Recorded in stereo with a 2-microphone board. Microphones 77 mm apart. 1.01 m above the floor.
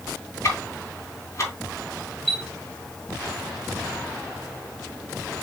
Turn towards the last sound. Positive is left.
turn(degrees=5)  # may be behind; listen again after turning